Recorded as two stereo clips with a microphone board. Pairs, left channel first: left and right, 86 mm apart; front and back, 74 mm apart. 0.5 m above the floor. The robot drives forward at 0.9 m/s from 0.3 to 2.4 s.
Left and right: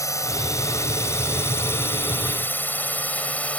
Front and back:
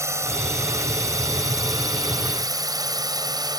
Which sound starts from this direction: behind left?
A drone, at 0.0 s.